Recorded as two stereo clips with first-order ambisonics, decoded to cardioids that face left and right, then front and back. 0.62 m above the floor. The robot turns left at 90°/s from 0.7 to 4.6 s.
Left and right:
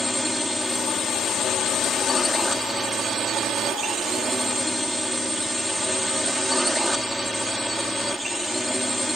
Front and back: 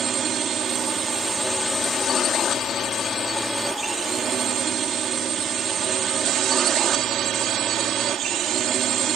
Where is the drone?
175° left; by 9.2 s straight behind.